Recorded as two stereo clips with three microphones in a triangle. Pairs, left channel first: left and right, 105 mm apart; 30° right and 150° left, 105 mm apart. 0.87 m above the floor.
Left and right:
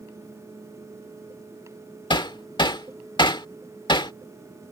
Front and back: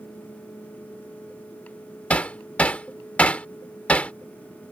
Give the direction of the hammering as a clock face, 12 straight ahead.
10 o'clock.